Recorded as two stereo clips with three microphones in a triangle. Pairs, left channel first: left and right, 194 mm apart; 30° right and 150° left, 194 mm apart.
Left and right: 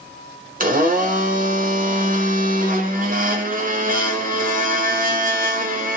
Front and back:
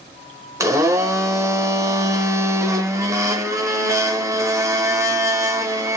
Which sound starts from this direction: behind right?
A blender, at 0.6 s.